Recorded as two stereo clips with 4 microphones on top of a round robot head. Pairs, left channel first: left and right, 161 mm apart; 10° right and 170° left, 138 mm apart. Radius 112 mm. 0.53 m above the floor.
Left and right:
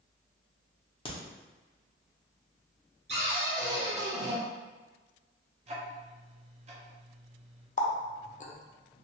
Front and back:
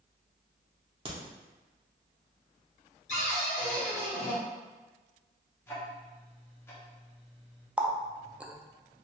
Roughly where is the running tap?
Left.